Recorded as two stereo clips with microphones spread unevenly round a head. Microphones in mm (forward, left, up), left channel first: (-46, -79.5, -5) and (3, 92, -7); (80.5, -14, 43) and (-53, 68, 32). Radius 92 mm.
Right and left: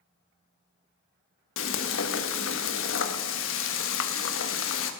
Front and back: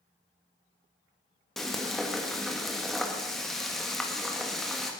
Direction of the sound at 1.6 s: 120° right.